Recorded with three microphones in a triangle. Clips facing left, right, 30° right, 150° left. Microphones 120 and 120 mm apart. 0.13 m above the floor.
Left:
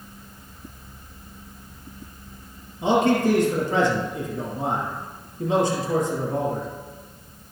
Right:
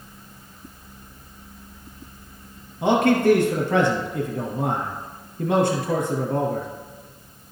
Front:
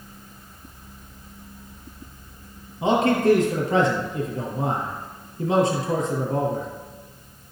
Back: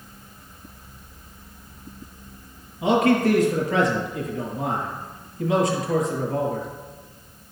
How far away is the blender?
No blender in this recording.